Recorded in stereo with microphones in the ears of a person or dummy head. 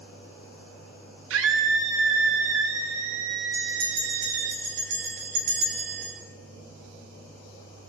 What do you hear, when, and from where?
1.3 s a scream: 85° right, 1.7 m
3.5 s a bell: 45° right (ahead or behind), 3 m